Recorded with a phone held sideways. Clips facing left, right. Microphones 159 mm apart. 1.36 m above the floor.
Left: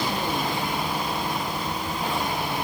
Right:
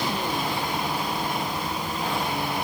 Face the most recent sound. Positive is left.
No sound to turn to.